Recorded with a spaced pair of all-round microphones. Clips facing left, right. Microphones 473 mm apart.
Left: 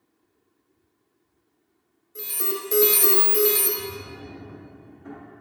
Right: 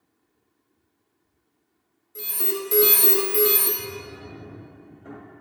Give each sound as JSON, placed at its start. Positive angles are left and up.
{"t": 2.1, "sound": "an alarm", "side_deg": -15, "distance_m": 1.5}
{"t": 3.8, "sound": "a drawer", "side_deg": 25, "distance_m": 1.5}